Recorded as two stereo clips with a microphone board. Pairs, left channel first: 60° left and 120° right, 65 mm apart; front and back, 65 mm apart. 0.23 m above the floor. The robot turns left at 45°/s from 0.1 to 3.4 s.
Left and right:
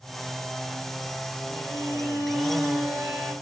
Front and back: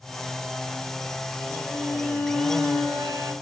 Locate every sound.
1.5 s a violin: 120° right, 2.5 m; by 3.3 s 160° left, 2.5 m